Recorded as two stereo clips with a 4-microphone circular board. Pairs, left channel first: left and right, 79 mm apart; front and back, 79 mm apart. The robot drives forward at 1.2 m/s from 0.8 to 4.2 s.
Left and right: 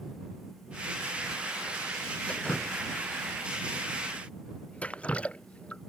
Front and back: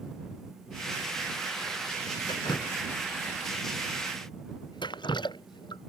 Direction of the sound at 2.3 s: 15° left.